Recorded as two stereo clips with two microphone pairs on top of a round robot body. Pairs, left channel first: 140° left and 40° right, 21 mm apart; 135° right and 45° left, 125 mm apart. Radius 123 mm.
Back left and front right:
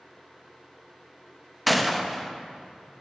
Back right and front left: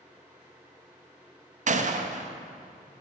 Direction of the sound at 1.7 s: 50° left.